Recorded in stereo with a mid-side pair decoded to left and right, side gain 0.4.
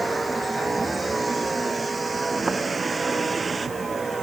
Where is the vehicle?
15° right; by 4.2 s 30° right.